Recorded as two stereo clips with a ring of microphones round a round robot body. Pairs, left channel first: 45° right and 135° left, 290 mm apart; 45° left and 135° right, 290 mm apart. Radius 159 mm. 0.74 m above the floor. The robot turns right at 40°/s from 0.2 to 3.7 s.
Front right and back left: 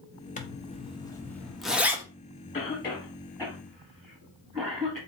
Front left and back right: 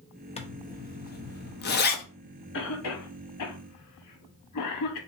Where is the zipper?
5° right, 0.7 m; by 2.0 s 60° left, 0.7 m.